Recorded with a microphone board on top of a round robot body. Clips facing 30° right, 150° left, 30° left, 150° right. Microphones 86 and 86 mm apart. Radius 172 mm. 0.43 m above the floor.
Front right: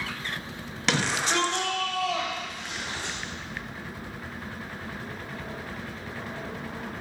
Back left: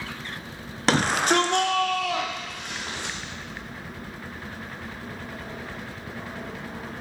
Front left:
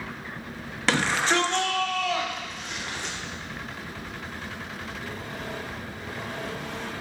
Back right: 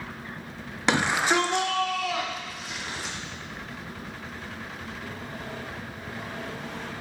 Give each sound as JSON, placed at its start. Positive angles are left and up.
{"t": 0.9, "sound": "a shout", "azimuth_deg": 150, "distance_m": 0.8}